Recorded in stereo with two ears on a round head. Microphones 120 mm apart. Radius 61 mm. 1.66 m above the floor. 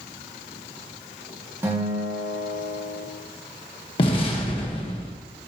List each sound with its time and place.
1.6 s a guitar: 20° right (ahead or behind), 2 m
4.0 s an explosion: 40° left (ahead or behind), 1.5 m